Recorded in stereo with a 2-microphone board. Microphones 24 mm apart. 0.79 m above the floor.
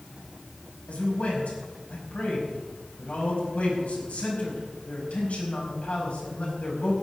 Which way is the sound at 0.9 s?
70° left (ahead or behind).